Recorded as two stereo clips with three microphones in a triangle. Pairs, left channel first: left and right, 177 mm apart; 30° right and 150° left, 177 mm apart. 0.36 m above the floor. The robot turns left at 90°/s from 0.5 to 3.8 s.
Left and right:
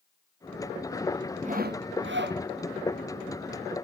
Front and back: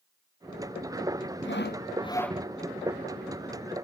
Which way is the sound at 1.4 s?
40° right.